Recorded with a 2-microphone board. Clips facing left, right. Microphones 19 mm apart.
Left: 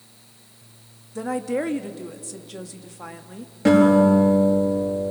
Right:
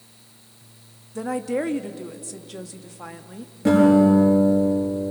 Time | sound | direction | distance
1.1 | a woman speaking | centre (ahead or behind) | 1.1 m
3.6 | a guitar | 30° left (ahead or behind) | 9 m